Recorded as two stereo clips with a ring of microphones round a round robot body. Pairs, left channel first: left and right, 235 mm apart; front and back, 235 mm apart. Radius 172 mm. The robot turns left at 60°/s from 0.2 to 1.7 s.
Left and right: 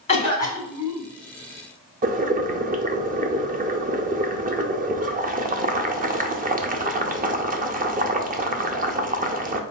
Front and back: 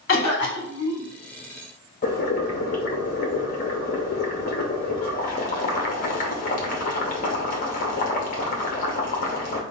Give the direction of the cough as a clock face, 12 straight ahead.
11 o'clock.